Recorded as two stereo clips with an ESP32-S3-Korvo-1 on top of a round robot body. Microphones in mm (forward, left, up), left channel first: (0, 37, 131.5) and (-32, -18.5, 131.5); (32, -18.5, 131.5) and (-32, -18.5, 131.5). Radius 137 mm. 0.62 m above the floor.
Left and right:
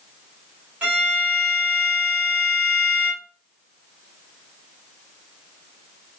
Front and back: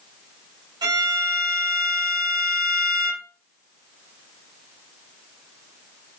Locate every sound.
0.8 s a violin: 170° left, 0.9 m